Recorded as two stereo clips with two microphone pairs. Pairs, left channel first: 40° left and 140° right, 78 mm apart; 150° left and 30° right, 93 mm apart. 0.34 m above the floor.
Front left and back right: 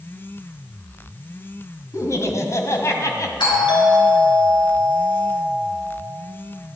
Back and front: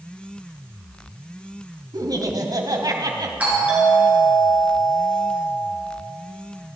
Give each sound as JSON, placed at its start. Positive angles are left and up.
{"t": 1.9, "sound": "laughter", "azimuth_deg": 5, "distance_m": 2.0}
{"t": 3.4, "sound": "a doorbell", "azimuth_deg": 45, "distance_m": 5.5}